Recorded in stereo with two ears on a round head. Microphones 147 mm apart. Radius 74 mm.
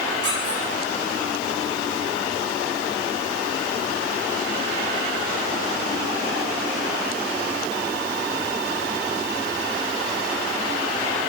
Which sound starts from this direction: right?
A squeak, at 0.2 s.